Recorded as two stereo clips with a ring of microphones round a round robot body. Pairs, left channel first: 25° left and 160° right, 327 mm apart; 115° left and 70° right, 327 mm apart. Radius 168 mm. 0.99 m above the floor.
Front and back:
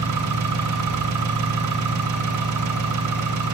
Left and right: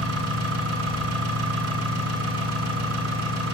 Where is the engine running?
115° right, 6.5 m.